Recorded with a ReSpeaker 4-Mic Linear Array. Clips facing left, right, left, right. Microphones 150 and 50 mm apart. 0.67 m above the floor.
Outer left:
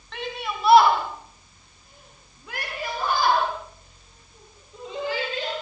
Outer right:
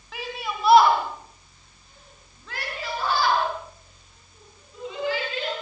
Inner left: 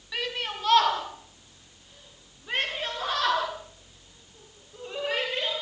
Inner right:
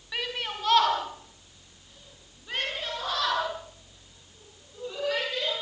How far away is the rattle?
No rattle in this recording.